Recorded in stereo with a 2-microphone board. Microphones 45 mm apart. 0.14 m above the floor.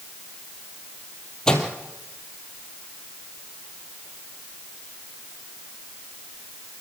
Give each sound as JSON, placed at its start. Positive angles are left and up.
{"t": 1.5, "sound": "a microwave", "side_deg": 15, "distance_m": 3.0}